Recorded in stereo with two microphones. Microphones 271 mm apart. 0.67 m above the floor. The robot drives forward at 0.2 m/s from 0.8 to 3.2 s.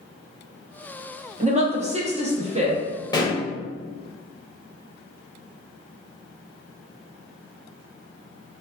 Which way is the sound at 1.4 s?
25° right (ahead or behind).